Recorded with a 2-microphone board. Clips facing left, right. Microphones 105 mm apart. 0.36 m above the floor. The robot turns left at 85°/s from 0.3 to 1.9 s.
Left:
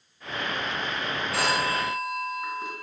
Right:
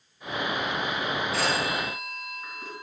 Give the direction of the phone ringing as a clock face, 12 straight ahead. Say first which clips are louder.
Left 4 dB; 9 o'clock.